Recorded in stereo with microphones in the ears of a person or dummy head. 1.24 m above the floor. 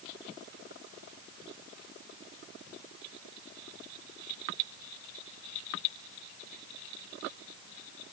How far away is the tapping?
I don't hear tapping.